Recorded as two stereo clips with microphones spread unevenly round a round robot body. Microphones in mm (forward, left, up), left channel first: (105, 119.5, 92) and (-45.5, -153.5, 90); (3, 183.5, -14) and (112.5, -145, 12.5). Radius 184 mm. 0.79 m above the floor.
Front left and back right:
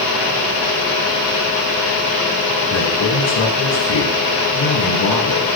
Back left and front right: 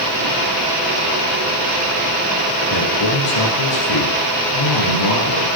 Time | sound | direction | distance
2.7 | a man speaking | 100° left | 8.5 m